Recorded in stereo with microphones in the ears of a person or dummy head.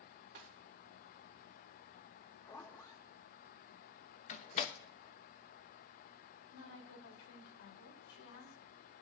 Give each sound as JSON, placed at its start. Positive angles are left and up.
{"t": 0.3, "sound": "a snare drum", "side_deg": -55, "distance_m": 2.5}
{"t": 2.4, "sound": "a zipper", "side_deg": 15, "distance_m": 1.0}
{"t": 4.3, "sound": "a door slam", "side_deg": 40, "distance_m": 0.8}
{"t": 6.5, "sound": "a woman speaking", "side_deg": 70, "distance_m": 2.5}